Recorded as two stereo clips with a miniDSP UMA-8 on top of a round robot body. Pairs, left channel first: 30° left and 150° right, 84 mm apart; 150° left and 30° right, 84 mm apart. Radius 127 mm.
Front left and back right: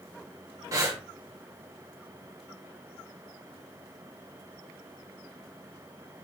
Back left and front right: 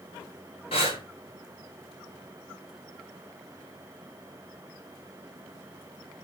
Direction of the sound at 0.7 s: 160° left.